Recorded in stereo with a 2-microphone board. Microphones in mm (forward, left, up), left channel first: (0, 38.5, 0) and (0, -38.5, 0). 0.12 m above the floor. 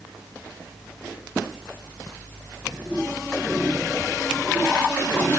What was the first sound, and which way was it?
Only background noise.